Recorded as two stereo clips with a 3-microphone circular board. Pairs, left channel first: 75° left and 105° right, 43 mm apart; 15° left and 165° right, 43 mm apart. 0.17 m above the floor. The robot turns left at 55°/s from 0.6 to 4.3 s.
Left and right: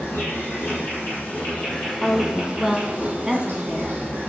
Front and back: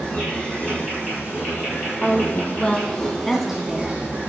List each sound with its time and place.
0.0 s an insect: 65° left, 4 m; by 4.3 s 135° right, 4 m
2.0 s a woman speaking: 10° left, 1.2 m; by 4.0 s 100° right, 1.2 m